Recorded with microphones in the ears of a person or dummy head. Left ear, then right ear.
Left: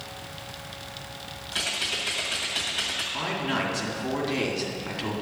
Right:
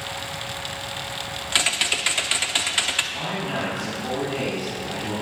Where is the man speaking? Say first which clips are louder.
Right 1 dB; 50° left (ahead or behind), 2 m.